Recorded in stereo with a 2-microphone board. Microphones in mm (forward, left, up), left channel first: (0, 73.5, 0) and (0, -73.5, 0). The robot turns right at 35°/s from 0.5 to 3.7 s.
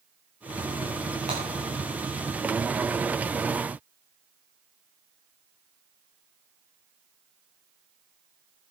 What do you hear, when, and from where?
1.3 s breaking glass: 50° right (ahead or behind), 9.5 m; by 1.4 s 45° right (ahead or behind), 9.5 m